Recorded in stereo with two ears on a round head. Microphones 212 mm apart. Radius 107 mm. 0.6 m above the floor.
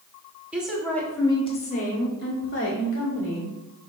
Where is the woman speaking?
5° right (ahead or behind), 1.7 m; by 3.5 s 60° left (ahead or behind), 2.5 m.